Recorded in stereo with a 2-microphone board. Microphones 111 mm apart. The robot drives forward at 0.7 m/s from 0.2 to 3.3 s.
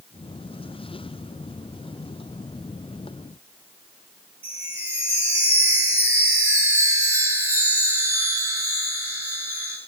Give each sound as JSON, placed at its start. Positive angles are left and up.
{"t": 4.4, "sound": "a chime", "side_deg": -20, "distance_m": 4.5}